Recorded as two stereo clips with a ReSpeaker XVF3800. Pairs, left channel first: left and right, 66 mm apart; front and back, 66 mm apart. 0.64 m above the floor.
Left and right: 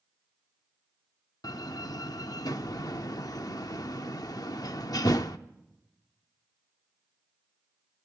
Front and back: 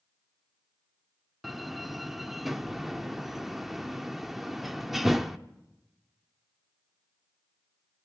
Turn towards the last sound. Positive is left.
turn(degrees=95)